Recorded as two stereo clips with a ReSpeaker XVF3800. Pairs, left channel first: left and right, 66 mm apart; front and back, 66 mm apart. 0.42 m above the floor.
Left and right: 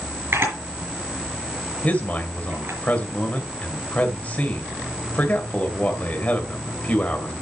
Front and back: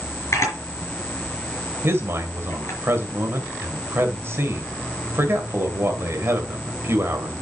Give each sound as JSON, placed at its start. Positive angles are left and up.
{"t": 0.3, "sound": "a camera shutter", "azimuth_deg": -40, "distance_m": 5.0}
{"t": 1.8, "sound": "a man speaking", "azimuth_deg": 150, "distance_m": 2.0}